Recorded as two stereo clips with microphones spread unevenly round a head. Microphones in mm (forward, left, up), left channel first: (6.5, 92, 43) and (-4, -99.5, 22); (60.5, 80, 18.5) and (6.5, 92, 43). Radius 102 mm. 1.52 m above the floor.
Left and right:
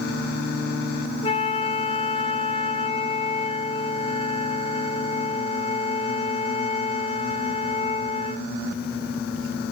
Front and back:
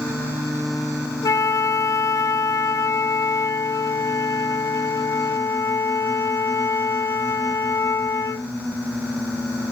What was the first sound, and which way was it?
A flute, 25° left.